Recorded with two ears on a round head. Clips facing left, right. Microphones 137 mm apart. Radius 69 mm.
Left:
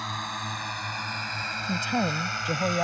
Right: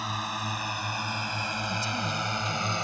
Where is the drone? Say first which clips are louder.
Right 1 dB; 5° right (ahead or behind); by 2.9 s 25° right (ahead or behind).